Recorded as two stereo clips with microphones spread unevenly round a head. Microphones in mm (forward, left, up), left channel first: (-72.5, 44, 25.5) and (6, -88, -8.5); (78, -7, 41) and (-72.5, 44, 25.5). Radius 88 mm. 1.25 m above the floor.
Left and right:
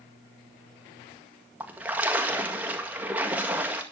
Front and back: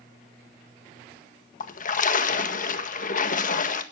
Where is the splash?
20° left, 1.7 m.